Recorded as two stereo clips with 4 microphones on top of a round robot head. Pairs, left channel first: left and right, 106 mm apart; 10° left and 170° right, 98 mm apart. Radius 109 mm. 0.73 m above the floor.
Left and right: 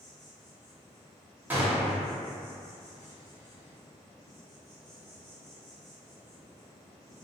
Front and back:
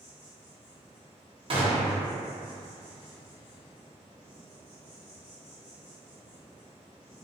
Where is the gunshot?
160° right, 0.7 m.